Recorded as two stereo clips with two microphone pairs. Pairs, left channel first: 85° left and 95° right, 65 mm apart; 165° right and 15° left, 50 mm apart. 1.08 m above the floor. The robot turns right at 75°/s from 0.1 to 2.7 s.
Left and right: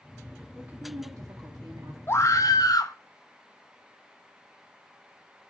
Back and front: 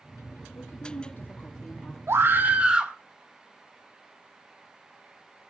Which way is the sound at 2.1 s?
35° left.